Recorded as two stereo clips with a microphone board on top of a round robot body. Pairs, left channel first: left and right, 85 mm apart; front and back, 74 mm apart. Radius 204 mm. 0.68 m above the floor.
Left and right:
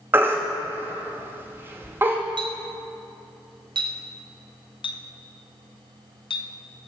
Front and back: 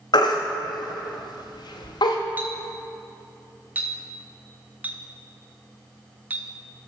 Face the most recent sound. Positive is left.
turn(degrees=110)